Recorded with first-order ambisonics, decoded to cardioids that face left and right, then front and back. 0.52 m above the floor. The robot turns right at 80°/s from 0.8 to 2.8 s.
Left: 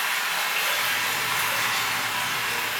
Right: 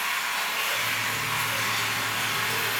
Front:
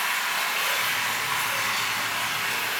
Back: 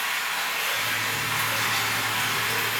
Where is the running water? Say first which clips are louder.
Left 2 dB, front 1 dB; 70° left, 0.7 m; by 2.8 s 130° right, 0.7 m.